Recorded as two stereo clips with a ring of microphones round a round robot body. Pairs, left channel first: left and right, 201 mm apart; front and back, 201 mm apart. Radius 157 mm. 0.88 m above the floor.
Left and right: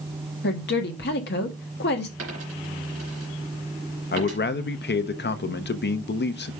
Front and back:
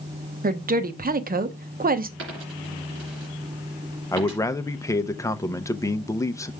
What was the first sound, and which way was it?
A woman speaking, 135° left.